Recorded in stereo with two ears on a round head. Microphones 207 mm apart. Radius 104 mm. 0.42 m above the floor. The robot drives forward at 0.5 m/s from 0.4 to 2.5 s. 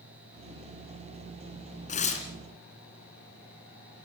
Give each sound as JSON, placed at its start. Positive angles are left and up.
{"t": 1.9, "sound": "tearing paper", "side_deg": 35, "distance_m": 3.5}